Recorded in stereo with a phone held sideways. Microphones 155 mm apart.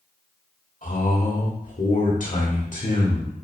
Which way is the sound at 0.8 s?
55° left (ahead or behind).